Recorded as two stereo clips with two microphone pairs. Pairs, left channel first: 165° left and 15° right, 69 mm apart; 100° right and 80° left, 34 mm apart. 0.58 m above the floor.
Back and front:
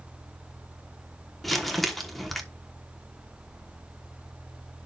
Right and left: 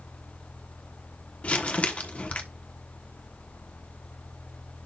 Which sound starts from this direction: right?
Crumpling, at 1.4 s.